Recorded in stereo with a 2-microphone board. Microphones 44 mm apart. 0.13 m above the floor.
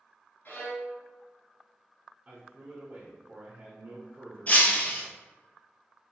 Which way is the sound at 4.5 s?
35° left (ahead or behind).